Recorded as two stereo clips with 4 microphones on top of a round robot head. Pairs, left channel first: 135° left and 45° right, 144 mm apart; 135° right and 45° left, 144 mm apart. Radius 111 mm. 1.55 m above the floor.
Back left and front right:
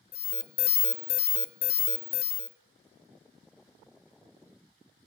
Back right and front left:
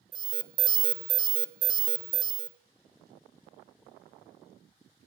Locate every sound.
0.1 s an alarm: 110° left, 0.6 m